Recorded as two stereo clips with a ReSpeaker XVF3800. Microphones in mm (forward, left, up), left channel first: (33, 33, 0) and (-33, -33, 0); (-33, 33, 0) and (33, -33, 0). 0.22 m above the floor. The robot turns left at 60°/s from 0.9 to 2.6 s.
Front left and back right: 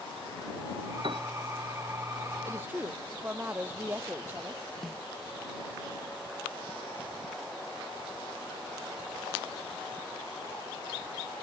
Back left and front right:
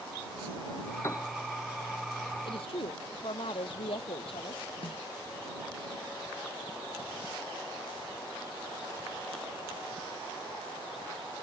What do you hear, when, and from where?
1.0 s a piano: 160° right; by 1.3 s 175° right
2.5 s a woman speaking: 165° left; by 4.6 s 155° left
4.8 s a snare drum: 135° left